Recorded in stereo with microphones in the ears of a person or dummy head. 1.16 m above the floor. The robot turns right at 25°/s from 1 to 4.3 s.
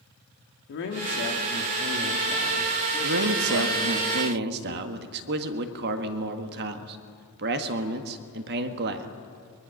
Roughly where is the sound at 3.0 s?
Right.